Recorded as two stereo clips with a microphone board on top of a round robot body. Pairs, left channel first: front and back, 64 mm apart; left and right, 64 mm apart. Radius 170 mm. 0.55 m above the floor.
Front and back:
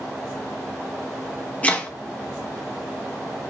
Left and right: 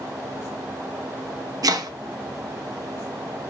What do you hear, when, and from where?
1.6 s chopping: 70° right, 0.9 m